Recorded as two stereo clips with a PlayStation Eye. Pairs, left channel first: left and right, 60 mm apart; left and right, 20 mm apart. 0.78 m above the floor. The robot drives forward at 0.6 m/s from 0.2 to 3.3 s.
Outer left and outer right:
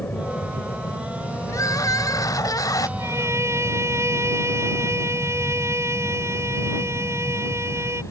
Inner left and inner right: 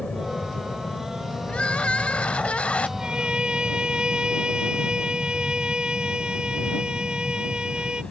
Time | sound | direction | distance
0.0 | an aircraft | 30° left (ahead or behind) | ?
1.5 | crying | 70° left (ahead or behind) | ?
3.0 | a violin | 50° right (ahead or behind) | ?